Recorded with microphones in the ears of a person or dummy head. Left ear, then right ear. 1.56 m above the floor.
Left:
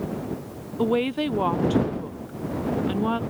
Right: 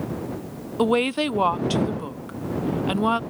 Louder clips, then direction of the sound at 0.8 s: Right 3 dB; 35° right (ahead or behind).